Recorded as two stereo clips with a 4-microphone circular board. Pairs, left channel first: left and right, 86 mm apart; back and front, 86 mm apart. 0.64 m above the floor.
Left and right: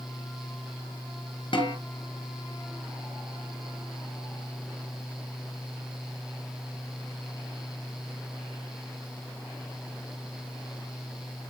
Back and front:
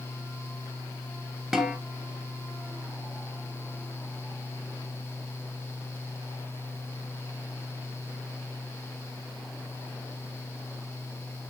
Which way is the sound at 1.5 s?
85° left.